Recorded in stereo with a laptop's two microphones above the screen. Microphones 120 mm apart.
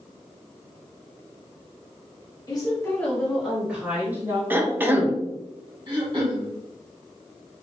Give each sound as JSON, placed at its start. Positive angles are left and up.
{"t": 2.5, "sound": "a woman speaking", "side_deg": 35, "distance_m": 1.9}
{"t": 4.5, "sound": "a cough", "side_deg": -15, "distance_m": 1.1}
{"t": 5.9, "sound": "throat clearing", "side_deg": -40, "distance_m": 1.2}